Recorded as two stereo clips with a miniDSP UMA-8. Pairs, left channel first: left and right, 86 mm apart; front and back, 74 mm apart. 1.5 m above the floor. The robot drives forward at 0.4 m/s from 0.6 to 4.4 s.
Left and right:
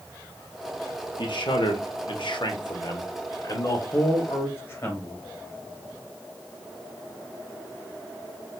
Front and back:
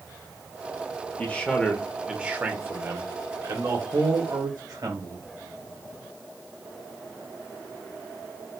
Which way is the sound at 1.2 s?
65° left.